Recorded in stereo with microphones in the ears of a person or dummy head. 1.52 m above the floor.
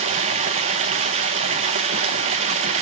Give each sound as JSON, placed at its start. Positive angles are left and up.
{"t": 0.0, "sound": "running water", "side_deg": -30, "distance_m": 0.8}